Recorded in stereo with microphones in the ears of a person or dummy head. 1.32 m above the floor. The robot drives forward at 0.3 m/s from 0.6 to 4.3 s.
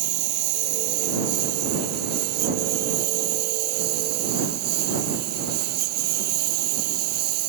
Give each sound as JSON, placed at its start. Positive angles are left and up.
{"t": 0.0, "sound": "a lawn mower", "side_deg": -50}